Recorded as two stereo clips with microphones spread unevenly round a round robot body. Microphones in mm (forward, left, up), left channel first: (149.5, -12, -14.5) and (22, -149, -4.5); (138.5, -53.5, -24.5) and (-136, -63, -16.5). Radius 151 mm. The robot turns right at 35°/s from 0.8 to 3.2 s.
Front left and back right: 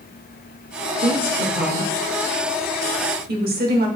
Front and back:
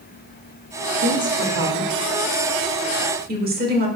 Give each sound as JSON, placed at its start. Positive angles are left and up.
{"t": 1.0, "sound": "a woman speaking", "azimuth_deg": 150, "distance_m": 1.5}